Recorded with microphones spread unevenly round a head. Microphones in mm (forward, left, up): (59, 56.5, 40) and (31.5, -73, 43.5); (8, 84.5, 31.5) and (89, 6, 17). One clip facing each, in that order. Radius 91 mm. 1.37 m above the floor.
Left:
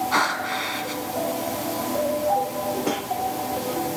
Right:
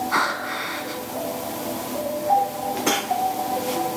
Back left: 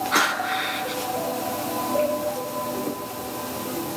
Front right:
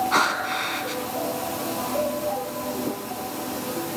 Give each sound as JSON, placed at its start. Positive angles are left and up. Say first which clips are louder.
{"t": 0.1, "sound": "breathing", "louder": "left 1 dB, even", "azimuth_deg": 10, "distance_m": 5.5}